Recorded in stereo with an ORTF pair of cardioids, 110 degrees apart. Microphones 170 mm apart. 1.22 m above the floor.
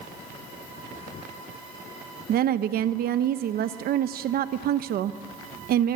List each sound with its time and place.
2.3 s a woman speaking: 60° right, 1.0 m